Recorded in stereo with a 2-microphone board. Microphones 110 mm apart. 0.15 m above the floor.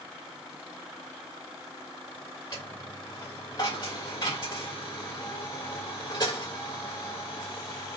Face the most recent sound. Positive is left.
turn(degrees=40)  # may be behind; listen again after turning